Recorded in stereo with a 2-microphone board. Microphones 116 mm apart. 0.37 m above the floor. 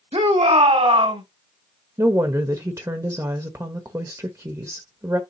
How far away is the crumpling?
No crumpling in this recording.